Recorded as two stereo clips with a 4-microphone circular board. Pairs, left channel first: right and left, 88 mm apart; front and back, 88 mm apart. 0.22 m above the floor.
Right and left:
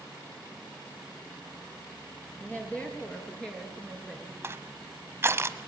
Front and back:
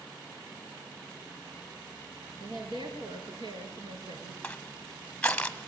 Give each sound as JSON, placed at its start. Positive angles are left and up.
{"t": 2.4, "sound": "a woman speaking", "azimuth_deg": -160, "distance_m": 5.0}
{"t": 4.4, "sound": "crushing", "azimuth_deg": 70, "distance_m": 1.2}